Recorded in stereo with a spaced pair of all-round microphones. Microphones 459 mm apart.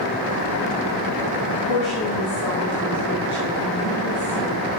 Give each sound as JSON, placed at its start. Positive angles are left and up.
{"t": 1.5, "sound": "a woman speaking", "side_deg": 90, "distance_m": 1.3}